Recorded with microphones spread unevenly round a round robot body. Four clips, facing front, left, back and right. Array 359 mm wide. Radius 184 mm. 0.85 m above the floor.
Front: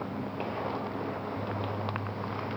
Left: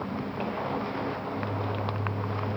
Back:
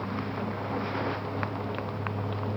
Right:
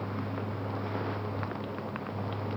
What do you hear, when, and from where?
Only background noise.